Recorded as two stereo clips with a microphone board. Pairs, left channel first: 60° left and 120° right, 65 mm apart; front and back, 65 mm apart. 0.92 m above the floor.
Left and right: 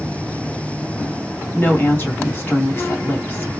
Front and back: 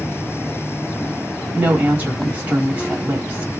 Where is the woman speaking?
115° left, 2.5 m.